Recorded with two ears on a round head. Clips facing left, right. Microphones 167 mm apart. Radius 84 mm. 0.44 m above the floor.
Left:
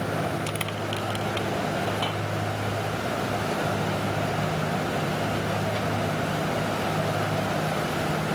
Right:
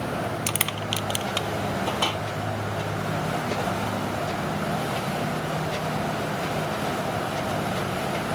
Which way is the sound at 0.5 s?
60° right (ahead or behind).